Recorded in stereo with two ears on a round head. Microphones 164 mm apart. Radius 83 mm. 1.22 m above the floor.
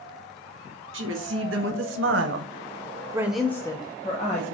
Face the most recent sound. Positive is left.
turn(degrees=40)  # may be behind; listen again after turning